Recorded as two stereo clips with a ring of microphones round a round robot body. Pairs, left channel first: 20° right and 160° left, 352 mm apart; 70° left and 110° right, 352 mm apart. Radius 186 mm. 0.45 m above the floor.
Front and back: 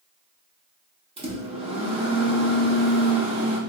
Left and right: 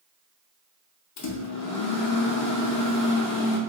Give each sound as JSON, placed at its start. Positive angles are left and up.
{"t": 1.2, "sound": "a microwave", "azimuth_deg": 90, "distance_m": 0.6}